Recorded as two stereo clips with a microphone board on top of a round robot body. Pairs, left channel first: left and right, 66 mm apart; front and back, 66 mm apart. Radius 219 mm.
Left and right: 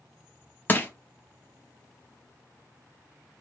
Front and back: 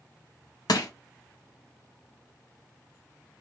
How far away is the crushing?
About 0.6 m.